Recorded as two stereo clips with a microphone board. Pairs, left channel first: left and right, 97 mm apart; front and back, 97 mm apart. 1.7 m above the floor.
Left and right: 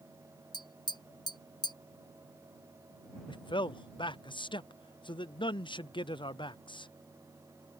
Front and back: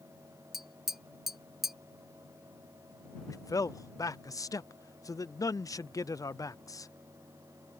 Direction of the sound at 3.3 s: 55° left.